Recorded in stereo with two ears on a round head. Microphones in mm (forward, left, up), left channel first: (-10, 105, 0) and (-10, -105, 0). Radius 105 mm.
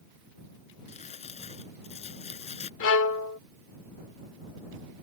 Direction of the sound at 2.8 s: 55° left (ahead or behind).